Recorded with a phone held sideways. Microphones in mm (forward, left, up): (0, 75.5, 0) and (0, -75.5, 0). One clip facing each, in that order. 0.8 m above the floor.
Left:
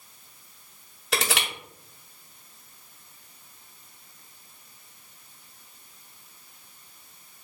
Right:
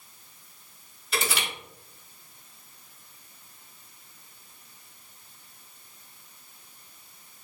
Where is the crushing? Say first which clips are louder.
Left 2 dB; 80° left, 1.5 m.